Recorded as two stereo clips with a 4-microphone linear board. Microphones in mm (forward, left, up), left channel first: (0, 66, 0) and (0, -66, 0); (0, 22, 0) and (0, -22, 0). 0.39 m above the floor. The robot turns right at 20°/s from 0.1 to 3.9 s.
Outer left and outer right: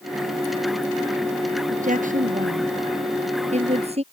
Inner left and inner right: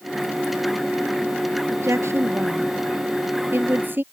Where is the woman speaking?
80° right; by 4.0 s 50° right (ahead or behind).